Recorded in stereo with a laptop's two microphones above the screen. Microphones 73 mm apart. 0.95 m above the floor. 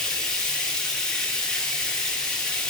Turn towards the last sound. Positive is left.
turn(degrees=10)  # may be behind; listen again after turning